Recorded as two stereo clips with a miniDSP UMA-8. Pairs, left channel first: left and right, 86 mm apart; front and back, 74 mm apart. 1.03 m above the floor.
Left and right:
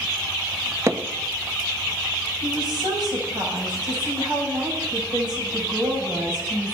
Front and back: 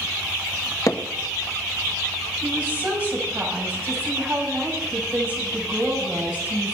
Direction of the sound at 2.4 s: 110° right.